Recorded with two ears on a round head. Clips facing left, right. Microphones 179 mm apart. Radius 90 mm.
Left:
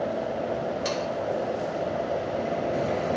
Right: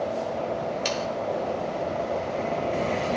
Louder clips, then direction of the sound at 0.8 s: Even; 35° right (ahead or behind).